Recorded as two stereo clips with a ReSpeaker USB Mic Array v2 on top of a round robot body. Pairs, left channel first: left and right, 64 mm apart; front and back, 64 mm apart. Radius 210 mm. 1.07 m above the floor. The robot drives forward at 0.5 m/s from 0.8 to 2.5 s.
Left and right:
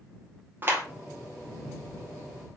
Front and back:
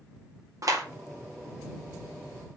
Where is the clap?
150° right, 3 m.